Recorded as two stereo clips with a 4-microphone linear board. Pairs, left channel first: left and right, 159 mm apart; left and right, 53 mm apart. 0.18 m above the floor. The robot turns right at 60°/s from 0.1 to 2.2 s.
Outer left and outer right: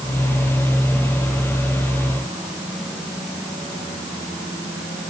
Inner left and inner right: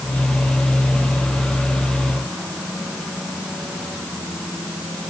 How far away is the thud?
I don't hear a thud.